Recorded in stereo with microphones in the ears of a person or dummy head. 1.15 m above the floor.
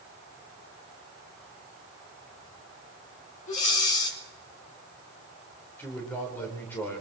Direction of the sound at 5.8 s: 20° left (ahead or behind).